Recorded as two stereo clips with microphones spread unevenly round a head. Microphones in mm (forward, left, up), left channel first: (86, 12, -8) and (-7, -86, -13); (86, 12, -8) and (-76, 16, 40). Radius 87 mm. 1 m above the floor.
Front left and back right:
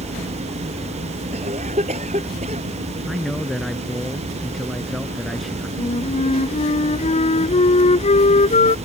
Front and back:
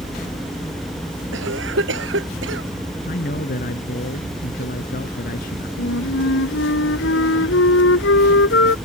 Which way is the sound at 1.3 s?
170° left.